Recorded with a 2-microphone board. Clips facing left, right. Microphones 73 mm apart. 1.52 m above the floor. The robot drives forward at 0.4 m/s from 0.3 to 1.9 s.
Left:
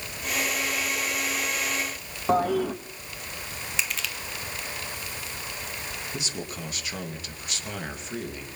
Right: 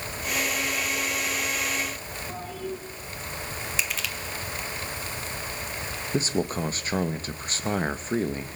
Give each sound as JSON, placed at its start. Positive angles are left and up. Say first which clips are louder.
{"t": 2.3, "sound": "a toilet flushing", "louder": "left 13 dB", "side_deg": 80, "distance_m": 2.0}
{"t": 3.8, "sound": "crushing", "louder": "left 1 dB", "side_deg": 0, "distance_m": 1.8}
{"t": 6.1, "sound": "a man speaking", "louder": "right 13 dB", "side_deg": -40, "distance_m": 2.0}